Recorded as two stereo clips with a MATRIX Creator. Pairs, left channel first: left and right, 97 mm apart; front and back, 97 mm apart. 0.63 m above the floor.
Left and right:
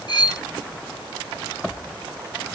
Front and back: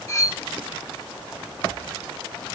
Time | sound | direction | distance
0.1 | cutlery clinking | 55° left | 1.0 m